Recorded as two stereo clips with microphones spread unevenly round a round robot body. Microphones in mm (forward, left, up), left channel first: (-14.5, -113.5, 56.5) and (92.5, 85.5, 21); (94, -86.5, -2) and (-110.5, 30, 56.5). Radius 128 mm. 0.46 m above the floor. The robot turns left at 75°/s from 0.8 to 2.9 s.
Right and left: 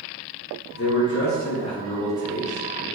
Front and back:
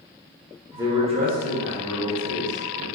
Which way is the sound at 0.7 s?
120° right.